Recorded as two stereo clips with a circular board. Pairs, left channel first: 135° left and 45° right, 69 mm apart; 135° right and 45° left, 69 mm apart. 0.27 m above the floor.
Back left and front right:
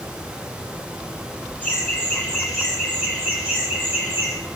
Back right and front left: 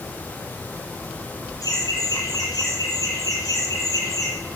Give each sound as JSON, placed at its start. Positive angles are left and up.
{"t": 1.6, "sound": "laughter", "azimuth_deg": -145, "distance_m": 2.5}